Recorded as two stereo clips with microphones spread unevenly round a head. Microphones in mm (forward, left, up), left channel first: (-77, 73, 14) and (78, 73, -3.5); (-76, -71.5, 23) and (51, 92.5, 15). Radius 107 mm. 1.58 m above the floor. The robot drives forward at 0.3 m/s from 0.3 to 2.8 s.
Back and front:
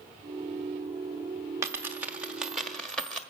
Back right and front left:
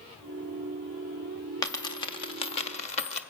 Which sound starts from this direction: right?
A dropped coin, at 1.6 s.